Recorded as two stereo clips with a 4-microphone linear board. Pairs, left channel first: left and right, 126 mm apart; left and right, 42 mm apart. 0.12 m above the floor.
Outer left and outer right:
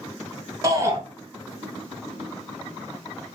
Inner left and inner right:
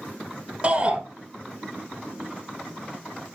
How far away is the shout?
About 1.4 m.